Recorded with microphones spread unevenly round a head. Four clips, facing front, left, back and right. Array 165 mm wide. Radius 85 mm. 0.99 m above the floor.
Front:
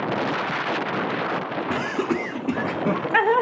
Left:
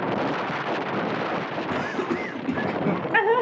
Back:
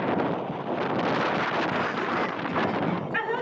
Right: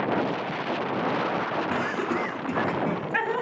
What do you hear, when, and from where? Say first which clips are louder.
1.7 s laughter: even, front 3 dB; 10° left, 1.9 m; by 3.4 s 40° left, 1.1 m